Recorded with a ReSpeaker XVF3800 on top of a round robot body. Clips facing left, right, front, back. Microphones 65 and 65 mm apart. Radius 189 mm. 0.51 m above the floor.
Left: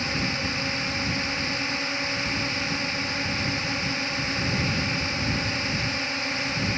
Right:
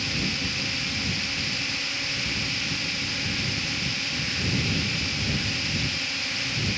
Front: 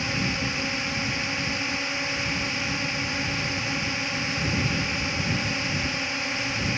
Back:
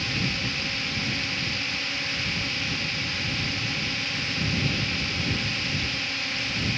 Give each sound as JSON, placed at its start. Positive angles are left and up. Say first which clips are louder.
{"t": 0.0, "sound": "a drone", "louder": "left 2 dB, front 2 dB", "azimuth_deg": 55}